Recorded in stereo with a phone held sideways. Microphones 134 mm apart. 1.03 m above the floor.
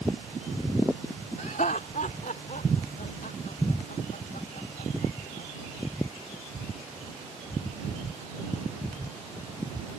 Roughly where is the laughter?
Left.